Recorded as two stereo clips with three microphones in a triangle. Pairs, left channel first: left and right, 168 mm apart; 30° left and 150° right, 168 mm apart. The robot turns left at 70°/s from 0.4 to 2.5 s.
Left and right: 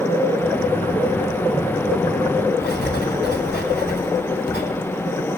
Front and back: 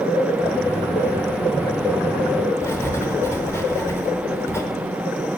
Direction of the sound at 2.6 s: 105° left.